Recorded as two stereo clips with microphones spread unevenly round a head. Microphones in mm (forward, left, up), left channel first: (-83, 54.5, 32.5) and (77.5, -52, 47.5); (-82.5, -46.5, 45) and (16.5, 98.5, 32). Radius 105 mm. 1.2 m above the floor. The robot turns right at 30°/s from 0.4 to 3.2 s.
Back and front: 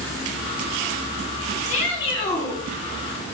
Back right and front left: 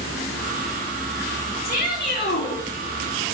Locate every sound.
1.6 s a shout: 160° right, 3.5 m; by 2.6 s 130° right, 3.5 m